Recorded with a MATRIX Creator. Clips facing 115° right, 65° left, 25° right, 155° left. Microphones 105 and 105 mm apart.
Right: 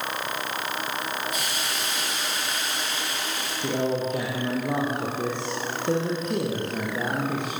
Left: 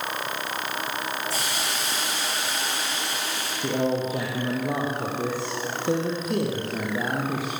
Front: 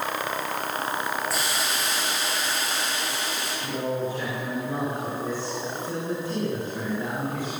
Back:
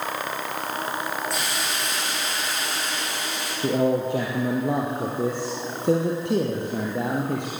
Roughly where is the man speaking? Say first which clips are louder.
Left 1 dB, back 8 dB; behind left.